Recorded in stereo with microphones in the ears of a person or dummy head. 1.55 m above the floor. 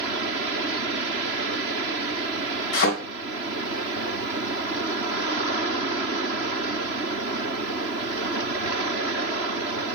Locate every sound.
2.7 s a thud: 55° left (ahead or behind), 2.5 m